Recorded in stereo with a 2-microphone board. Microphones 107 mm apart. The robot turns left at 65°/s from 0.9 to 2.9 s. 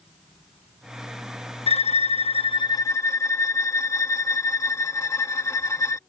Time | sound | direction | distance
1.7 | a violin | 110° left | ?